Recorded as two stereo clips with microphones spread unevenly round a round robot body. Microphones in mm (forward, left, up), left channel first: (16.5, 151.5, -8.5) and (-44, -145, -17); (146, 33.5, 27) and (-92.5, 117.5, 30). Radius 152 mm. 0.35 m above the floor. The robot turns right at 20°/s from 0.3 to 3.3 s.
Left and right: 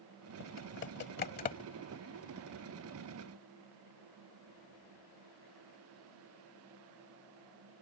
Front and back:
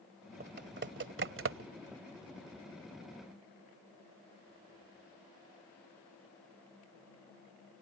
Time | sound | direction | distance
0.4 | typing on a keyboard | 115° left | ?